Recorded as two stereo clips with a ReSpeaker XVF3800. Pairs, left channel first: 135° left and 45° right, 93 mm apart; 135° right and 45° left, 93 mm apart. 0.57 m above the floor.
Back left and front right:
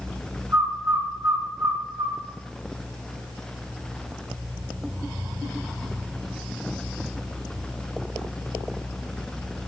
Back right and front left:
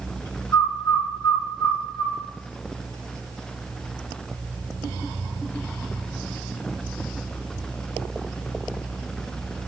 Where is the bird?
85° right, 1.8 m.